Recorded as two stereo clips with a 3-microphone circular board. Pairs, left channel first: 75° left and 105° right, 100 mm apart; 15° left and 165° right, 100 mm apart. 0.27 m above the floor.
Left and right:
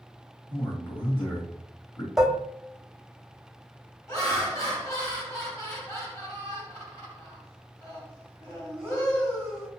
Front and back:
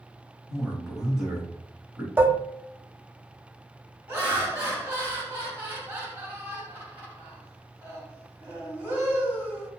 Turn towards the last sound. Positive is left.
turn(degrees=130)